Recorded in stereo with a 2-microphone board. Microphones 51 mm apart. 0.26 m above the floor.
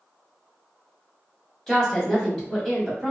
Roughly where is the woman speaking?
Centre.